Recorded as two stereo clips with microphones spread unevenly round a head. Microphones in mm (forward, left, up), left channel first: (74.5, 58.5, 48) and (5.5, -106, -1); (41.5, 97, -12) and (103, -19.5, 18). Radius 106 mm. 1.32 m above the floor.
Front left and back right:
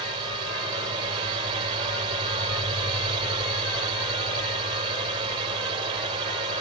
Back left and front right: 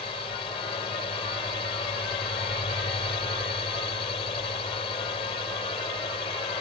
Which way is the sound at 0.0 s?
175° right.